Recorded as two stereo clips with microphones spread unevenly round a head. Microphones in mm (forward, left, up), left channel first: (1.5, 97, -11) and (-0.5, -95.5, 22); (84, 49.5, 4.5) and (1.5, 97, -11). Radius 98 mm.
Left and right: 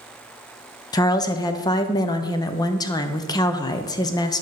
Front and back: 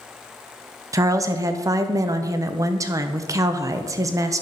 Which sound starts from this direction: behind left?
A woman speaking, at 0.9 s.